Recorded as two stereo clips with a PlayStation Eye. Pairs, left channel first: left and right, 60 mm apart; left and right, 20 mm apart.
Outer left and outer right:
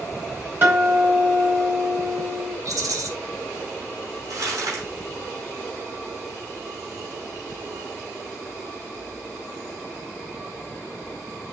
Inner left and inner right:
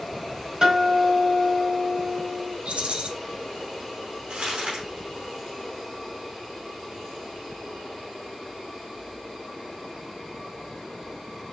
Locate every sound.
0.6 s a guitar: 40° right (ahead or behind), 3.5 m
2.6 s a rattle: 70° right (ahead or behind), 1.2 m
4.3 s crumpling: 75° right (ahead or behind), 5 m